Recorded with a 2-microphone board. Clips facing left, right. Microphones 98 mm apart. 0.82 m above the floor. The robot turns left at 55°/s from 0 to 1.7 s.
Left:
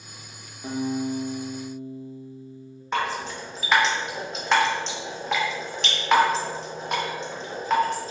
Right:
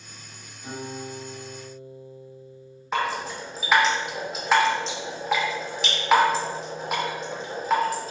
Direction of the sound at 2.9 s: 5° right (ahead or behind).